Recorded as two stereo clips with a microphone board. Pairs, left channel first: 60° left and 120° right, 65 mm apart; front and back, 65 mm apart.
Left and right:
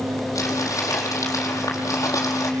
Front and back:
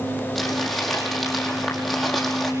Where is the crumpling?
90° left, 4.5 m.